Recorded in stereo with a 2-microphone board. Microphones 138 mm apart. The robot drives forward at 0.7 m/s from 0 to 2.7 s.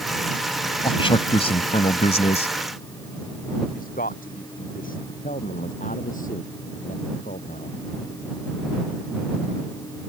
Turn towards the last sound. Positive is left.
turn(degrees=70)  # may be behind; listen again after turning